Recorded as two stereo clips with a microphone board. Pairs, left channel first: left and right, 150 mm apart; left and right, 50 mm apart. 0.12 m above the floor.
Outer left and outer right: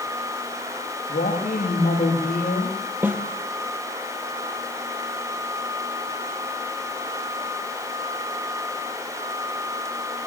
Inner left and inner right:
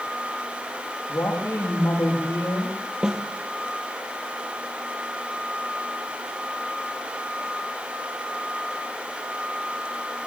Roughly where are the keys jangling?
No keys jangling in this recording.